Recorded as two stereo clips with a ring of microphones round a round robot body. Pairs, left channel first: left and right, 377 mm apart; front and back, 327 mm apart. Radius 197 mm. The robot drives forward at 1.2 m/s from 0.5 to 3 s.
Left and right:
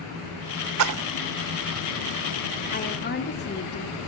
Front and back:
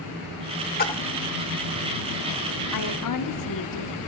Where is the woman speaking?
20° left, 2 m; by 4.0 s 25° left, 1.9 m.